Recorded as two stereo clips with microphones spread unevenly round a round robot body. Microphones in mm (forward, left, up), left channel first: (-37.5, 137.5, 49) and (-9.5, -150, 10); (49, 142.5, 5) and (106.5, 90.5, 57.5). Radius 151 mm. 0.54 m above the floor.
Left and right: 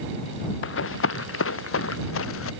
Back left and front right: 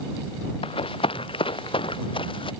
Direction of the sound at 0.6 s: 140° left.